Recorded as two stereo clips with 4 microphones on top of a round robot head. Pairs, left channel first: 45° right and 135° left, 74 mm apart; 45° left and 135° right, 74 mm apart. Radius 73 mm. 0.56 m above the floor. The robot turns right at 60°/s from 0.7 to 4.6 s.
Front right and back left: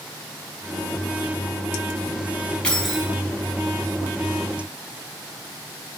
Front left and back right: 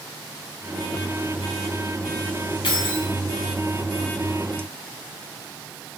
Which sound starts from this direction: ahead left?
Keys jangling, at 2.6 s.